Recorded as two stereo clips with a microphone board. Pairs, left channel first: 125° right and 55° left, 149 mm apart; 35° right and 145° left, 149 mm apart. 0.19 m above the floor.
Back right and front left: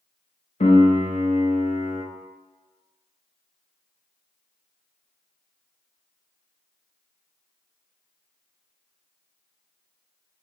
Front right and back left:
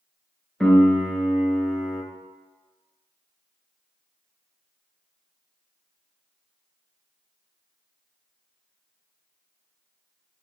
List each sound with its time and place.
0.6 s a piano: 120° right, 0.6 m